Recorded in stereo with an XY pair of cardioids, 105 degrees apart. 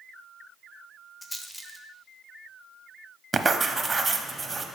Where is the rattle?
15° left, 0.7 m.